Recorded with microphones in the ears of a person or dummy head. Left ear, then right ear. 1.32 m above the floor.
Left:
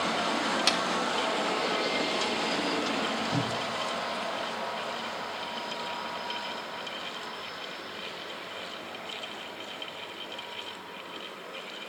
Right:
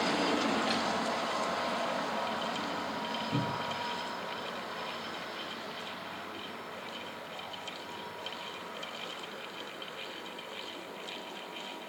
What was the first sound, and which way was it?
Tapping, 75° left (ahead or behind).